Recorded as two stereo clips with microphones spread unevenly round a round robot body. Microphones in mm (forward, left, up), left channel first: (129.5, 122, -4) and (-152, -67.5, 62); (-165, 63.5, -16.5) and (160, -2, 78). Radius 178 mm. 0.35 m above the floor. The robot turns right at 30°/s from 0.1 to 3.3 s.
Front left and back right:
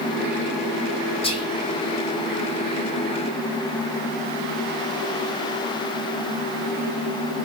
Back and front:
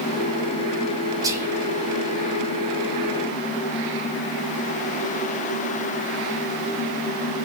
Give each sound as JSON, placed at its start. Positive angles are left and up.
{"t": 1.2, "sound": "whispering", "azimuth_deg": 85, "distance_m": 1.1}